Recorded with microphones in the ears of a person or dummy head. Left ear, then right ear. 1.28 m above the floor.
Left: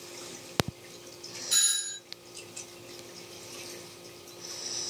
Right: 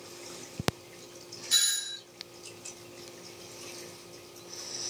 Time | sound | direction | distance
1.5 | a doorbell | 10° right (ahead or behind) | 0.9 m